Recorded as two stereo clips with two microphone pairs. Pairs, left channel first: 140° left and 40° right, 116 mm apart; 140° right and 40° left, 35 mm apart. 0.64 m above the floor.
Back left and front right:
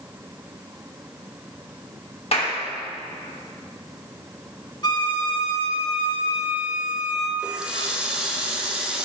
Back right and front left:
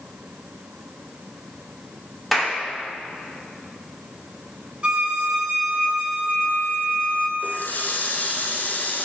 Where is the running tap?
120° right, 1.2 m.